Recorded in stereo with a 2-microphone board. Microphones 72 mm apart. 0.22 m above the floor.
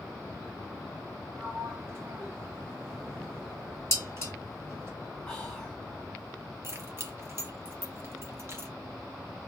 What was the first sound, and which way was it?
A sliding door, 35° right (ahead or behind).